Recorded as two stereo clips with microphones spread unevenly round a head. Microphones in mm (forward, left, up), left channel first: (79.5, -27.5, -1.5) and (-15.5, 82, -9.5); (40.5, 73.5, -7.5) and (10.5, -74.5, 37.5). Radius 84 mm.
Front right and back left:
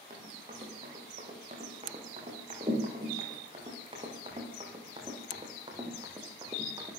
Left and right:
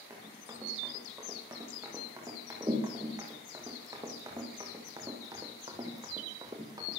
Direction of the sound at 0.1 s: 170° right.